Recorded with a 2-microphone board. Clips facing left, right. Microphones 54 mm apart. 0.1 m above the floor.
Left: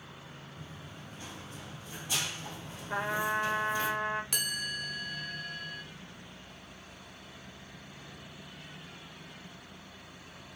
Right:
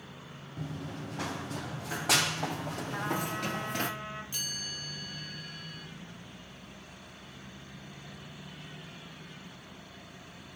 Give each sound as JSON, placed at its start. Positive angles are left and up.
{"t": 0.6, "sound": "running footsteps", "side_deg": -70, "distance_m": 1.6}
{"t": 2.9, "sound": "a trumpet", "side_deg": 80, "distance_m": 5.0}
{"t": 4.3, "sound": "a chime", "side_deg": 80, "distance_m": 1.4}